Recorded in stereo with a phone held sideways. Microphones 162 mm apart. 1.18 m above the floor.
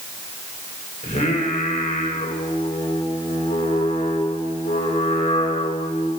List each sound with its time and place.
1.0 s singing: 45° left (ahead or behind), 4.5 m